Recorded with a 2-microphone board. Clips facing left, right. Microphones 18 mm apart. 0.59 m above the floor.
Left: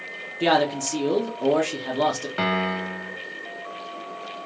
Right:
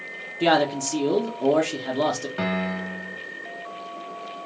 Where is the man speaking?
5° left (ahead or behind), 0.7 m.